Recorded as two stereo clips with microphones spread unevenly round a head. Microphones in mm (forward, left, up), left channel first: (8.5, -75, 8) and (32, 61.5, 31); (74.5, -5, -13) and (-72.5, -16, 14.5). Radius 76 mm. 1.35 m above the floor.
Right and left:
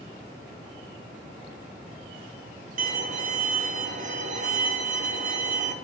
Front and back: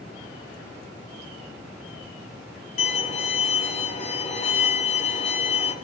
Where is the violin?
50° left, 1.1 m.